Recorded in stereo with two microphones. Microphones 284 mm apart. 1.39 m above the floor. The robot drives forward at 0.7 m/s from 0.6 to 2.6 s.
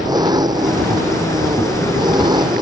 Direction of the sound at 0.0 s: 15° right (ahead or behind).